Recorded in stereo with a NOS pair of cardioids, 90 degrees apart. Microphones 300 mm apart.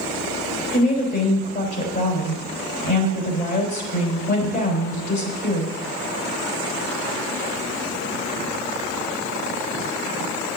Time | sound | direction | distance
0.7 | a woman speaking | 35° left | 3.5 m